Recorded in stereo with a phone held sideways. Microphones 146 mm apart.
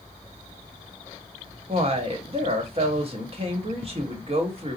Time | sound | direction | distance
1.7 | a woman speaking | 40° right (ahead or behind) | 1.3 m